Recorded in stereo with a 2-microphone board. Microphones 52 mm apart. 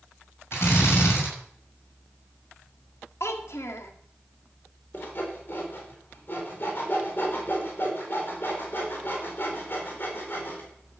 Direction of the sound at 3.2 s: 65° left (ahead or behind).